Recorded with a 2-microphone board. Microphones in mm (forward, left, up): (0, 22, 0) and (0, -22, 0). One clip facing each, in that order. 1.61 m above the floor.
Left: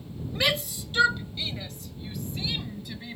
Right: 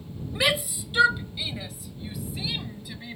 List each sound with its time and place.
0.3 s a shout: 10° right (ahead or behind); by 3.2 s 5° right (ahead or behind)